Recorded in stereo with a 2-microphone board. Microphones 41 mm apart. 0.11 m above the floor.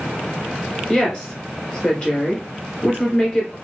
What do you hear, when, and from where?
0.9 s a woman speaking: 25° left (ahead or behind), 1.3 m